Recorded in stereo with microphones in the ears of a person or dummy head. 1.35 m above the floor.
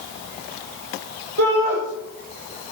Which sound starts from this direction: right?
A shout, at 1.4 s.